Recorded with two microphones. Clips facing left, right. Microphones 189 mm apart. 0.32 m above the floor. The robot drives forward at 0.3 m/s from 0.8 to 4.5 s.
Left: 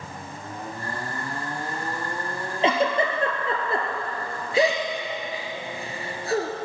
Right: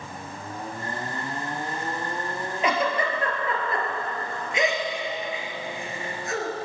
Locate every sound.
2.6 s a giggle: 30° left (ahead or behind), 2.5 m; by 6.5 s 35° left (ahead or behind), 2 m